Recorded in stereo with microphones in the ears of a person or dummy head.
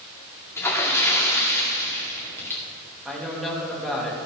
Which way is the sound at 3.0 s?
Centre (ahead or behind).